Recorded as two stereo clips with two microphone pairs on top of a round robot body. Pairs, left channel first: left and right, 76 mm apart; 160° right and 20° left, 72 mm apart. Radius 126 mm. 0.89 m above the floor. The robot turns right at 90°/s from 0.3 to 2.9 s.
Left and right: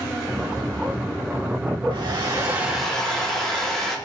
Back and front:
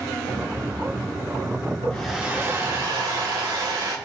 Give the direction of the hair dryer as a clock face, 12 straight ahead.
3 o'clock.